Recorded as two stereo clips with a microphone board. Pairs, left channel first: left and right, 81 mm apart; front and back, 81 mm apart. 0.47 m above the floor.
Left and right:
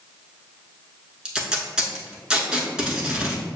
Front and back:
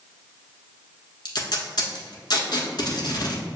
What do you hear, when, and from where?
1.2 s tape being pulled: 10° right, 0.9 m